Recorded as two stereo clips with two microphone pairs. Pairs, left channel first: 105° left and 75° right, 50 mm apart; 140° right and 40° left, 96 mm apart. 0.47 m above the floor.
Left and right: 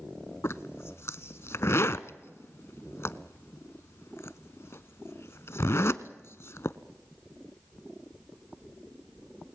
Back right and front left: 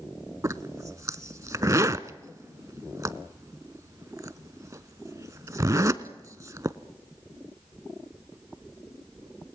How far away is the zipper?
About 0.6 m.